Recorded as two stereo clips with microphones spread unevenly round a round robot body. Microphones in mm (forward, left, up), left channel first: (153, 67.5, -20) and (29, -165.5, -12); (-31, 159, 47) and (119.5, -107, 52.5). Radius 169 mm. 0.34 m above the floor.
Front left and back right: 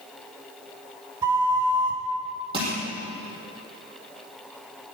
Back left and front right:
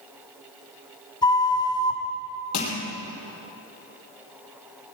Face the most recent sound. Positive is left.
turn(degrees=165)